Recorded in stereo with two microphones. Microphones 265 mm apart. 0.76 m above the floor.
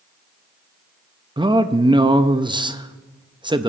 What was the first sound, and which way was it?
A man speaking, 20° right (ahead or behind).